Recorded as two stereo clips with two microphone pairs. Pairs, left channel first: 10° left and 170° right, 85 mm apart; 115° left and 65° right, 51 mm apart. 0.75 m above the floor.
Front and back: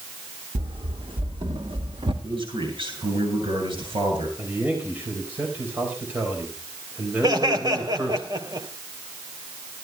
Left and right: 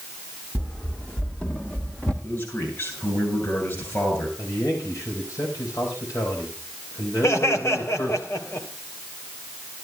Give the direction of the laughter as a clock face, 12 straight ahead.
7 o'clock.